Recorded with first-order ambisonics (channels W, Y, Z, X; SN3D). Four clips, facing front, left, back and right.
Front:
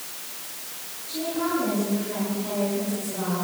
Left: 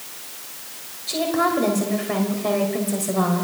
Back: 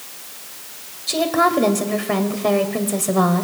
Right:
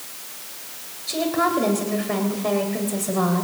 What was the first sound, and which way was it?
A woman speaking, straight behind.